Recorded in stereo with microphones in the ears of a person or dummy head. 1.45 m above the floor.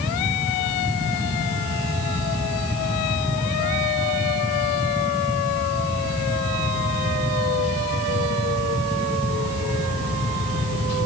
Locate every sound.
Only background noise.